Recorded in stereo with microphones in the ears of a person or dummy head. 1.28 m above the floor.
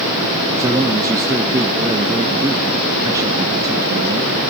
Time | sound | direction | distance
0.6 | a man speaking | 15° right (ahead or behind) | 1.4 m